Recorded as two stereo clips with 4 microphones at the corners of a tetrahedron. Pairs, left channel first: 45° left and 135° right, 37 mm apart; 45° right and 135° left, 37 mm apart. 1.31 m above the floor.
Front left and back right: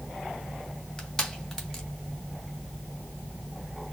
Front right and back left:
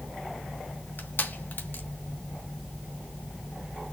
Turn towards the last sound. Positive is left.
turn(degrees=-35)